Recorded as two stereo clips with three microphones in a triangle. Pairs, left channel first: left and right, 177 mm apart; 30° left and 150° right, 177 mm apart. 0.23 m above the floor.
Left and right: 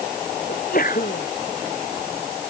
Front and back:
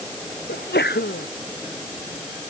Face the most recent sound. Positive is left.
turn(degrees=55)